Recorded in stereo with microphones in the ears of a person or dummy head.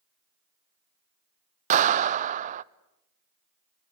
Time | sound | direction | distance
1.7 | a clap | 45° right (ahead or behind) | 0.6 m